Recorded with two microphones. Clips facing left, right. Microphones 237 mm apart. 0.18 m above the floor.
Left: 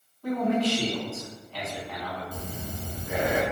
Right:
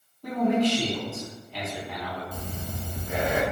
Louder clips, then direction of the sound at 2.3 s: Even; 10° left (ahead or behind).